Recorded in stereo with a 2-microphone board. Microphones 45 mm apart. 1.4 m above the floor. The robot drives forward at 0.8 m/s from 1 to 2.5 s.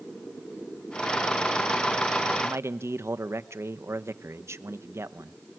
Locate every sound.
2.4 s a man speaking: 70° right (ahead or behind), 1.1 m